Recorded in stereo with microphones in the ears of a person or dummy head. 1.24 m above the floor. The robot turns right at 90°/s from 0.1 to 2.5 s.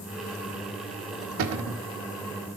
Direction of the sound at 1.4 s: 105° right.